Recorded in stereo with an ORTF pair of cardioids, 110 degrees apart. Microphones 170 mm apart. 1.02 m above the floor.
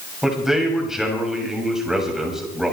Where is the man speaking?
5° right, 7 m.